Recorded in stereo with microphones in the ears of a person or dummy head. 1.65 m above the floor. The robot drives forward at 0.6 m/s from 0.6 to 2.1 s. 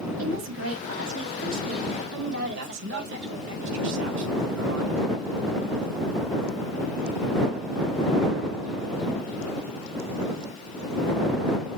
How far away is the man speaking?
About 2.0 m.